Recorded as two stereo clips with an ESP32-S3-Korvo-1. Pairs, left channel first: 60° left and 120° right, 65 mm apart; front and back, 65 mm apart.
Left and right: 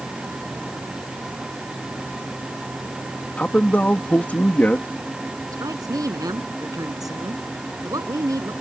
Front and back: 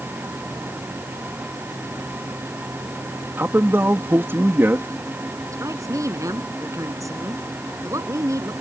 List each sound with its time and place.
3.4 s a man speaking: 130° left
5.5 s a woman speaking: 145° right